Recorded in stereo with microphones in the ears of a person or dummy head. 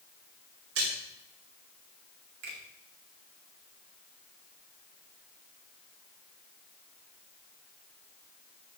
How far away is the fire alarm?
I don't hear a fire alarm.